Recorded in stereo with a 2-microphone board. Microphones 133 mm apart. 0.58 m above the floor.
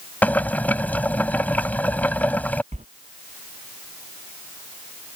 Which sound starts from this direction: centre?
Boiling, at 0.2 s.